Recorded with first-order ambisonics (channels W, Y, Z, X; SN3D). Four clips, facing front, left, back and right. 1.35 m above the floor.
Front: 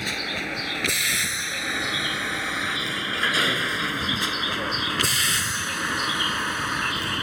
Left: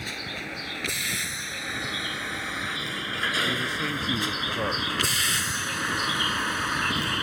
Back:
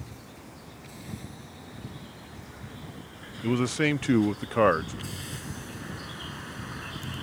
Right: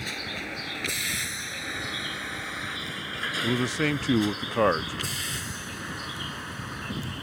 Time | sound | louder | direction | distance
0.0 | a vehicle | even, front 19 dB | straight ahead | ?
3.4 | a man speaking | right 1 dB, front 2 dB | 145° right | ?